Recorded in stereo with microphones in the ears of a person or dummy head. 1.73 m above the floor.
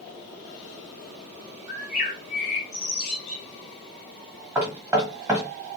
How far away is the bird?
About 1.7 m.